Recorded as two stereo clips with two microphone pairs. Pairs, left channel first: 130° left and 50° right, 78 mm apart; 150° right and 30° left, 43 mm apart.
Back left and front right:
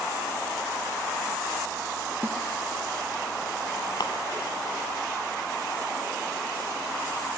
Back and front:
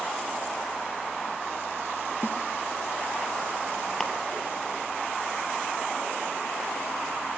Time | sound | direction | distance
2.2 | a snare drum | 115° right | 1.4 m
4.0 | a camera shutter | 130° left | 1.7 m